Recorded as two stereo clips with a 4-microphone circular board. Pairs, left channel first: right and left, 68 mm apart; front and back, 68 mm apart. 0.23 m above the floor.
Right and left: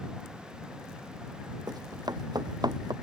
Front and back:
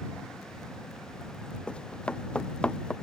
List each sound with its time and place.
1.7 s running footsteps: 75° left